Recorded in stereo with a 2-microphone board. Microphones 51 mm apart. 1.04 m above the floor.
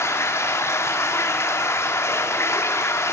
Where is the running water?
65° left (ahead or behind), 2.5 m.